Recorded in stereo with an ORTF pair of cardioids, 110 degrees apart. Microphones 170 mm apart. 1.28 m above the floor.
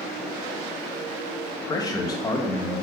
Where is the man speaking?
20° left, 1.8 m.